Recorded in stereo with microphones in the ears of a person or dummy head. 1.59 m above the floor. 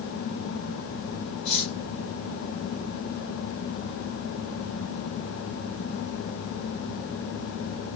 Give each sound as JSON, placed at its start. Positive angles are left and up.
{"t": 1.4, "sound": "cutlery clinking", "side_deg": 60, "distance_m": 3.0}